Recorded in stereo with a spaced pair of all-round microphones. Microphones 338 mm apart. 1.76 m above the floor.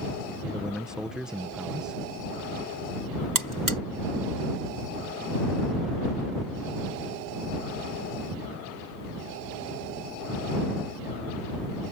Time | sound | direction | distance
0.5 | a man speaking | centre (ahead or behind) | ?
3.4 | a buzzer | 70° right (ahead or behind) | ?